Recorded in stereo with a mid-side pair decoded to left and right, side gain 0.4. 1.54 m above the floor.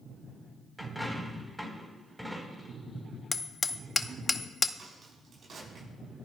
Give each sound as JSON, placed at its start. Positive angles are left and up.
{"t": 0.8, "sound": "a dropped coin", "azimuth_deg": 0, "distance_m": 3.5}
{"t": 3.3, "sound": "hammering", "azimuth_deg": 25, "distance_m": 0.6}
{"t": 4.8, "sound": "a crack", "azimuth_deg": -55, "distance_m": 7.0}